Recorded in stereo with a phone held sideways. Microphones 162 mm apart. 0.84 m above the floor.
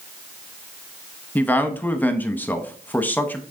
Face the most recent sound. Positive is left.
turn(degrees=10)  # may be behind; listen again after turning